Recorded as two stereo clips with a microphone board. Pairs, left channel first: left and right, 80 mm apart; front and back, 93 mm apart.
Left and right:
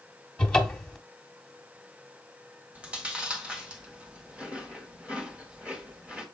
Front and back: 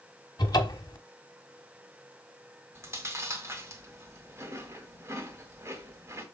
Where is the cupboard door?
15° left, 1.3 m.